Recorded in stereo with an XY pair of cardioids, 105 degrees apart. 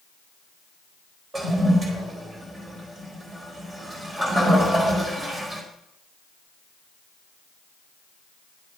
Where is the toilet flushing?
30° right, 4 m.